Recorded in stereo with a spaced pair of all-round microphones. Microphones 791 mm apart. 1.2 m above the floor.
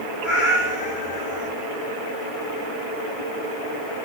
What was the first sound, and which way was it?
A cat meowing, 75° left (ahead or behind).